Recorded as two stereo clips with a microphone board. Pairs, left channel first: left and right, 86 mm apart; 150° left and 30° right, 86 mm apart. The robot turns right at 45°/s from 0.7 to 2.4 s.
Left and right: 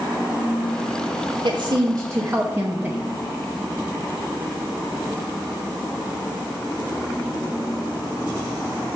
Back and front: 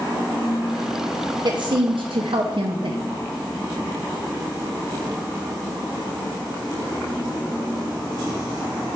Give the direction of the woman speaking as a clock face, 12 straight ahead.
2 o'clock.